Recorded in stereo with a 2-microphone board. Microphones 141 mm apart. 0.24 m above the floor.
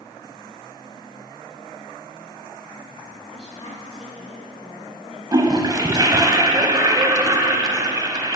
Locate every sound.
3.3 s a woman speaking: 50° left (ahead or behind), 2.0 m
5.3 s a toilet flushing: 30° right (ahead or behind), 0.6 m